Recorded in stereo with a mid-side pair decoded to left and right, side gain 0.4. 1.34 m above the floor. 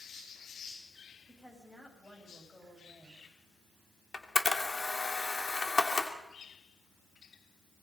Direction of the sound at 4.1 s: 35° left.